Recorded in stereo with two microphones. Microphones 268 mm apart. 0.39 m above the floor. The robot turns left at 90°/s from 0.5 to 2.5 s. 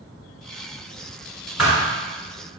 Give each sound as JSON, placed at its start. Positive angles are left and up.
{"t": 1.6, "sound": "a thud", "side_deg": -5, "distance_m": 1.6}